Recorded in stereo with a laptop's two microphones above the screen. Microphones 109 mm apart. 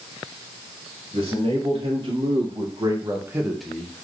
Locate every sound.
1.1 s a man speaking: 65° right (ahead or behind), 1.5 m; by 4.0 s 25° left (ahead or behind), 0.5 m